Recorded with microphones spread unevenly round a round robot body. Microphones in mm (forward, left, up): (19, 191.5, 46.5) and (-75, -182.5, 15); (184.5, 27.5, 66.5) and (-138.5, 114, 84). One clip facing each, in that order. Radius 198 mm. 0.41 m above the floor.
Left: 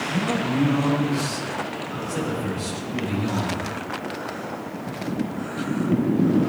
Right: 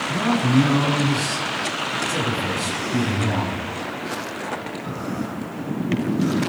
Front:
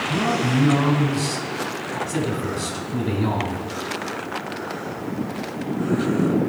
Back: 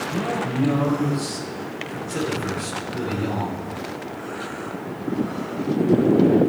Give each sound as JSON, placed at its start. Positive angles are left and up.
{"t": 0.1, "sound": "a man speaking", "azimuth_deg": -40, "distance_m": 4.5}